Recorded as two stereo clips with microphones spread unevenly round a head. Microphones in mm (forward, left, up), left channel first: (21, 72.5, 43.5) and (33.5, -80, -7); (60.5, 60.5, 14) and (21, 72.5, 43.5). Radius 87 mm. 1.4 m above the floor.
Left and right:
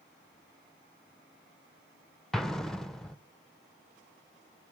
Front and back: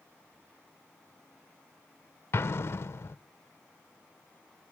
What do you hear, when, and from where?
2.3 s an explosion: 30° left, 0.5 m